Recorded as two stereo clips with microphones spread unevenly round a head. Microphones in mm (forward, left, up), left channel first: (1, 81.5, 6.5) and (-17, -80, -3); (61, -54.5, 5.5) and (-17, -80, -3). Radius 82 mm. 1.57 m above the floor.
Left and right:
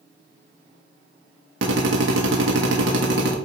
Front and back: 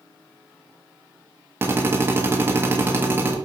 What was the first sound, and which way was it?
A drill, 100° right.